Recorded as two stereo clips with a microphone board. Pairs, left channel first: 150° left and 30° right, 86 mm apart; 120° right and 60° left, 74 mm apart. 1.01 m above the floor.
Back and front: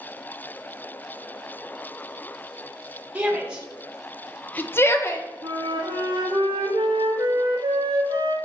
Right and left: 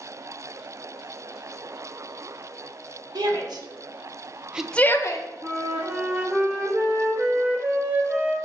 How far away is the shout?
About 1.7 m.